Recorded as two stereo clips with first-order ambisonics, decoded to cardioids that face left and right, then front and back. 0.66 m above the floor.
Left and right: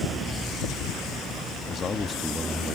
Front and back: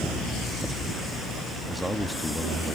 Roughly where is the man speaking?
Left.